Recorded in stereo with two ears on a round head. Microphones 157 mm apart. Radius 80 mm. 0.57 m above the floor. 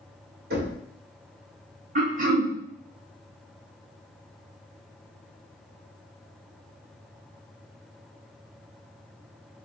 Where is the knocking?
55° right (ahead or behind), 1.9 m.